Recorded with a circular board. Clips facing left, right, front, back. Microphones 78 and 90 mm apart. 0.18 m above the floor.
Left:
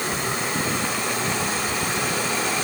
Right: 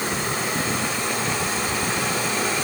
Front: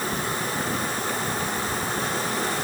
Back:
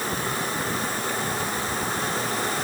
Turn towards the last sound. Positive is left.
No sound to turn to.